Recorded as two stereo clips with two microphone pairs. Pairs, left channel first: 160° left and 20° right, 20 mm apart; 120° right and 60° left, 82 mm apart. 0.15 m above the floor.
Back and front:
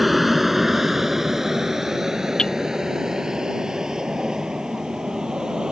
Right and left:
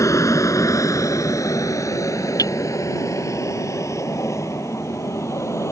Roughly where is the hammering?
Behind.